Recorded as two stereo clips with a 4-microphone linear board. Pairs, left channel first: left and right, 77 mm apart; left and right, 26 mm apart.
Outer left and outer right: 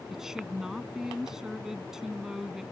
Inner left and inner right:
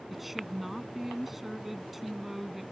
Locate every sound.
0.1 s a woman speaking: 5° right (ahead or behind)